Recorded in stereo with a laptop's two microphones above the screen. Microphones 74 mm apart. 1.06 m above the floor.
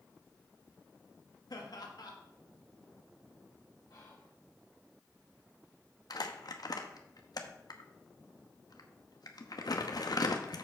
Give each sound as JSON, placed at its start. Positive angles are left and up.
{"t": 1.5, "sound": "laughter", "side_deg": 70, "distance_m": 1.4}
{"t": 3.9, "sound": "whispering", "side_deg": 65, "distance_m": 1.4}
{"t": 6.1, "sound": "crumpling", "side_deg": 65, "distance_m": 0.8}